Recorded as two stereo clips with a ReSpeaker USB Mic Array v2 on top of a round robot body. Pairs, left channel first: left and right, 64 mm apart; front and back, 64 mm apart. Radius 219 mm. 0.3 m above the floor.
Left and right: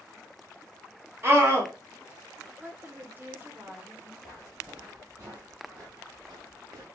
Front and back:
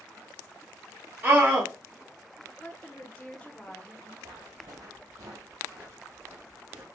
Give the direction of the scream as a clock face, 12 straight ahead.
4 o'clock.